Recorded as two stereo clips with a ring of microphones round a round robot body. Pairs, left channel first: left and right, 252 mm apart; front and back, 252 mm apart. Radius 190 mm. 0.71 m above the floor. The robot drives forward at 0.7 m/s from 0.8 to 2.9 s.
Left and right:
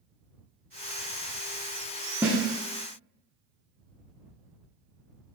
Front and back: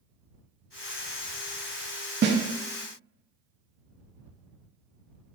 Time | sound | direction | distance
2.2 | a snare drum | 170° right | 0.7 m